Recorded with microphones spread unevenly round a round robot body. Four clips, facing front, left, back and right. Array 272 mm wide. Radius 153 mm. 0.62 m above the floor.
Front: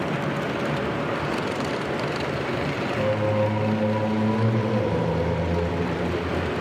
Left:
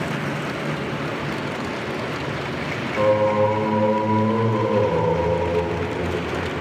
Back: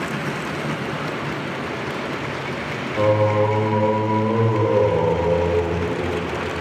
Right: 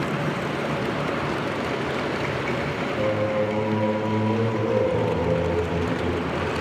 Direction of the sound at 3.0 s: 155° left.